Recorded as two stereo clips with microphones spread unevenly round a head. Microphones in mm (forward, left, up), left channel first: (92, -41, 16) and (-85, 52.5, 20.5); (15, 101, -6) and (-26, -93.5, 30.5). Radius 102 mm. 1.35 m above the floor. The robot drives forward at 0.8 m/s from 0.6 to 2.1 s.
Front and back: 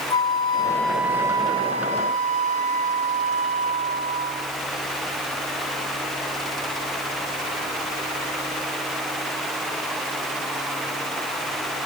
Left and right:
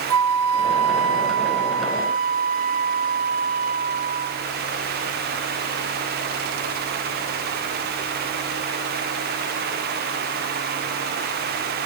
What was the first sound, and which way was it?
A flute, 95° right.